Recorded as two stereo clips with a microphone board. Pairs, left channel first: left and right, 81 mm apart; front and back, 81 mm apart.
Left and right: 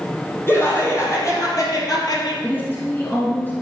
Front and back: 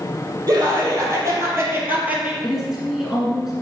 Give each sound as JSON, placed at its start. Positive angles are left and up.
{"t": 0.5, "sound": "laughter", "azimuth_deg": 145, "distance_m": 4.0}
{"t": 2.4, "sound": "a woman speaking", "azimuth_deg": 100, "distance_m": 1.6}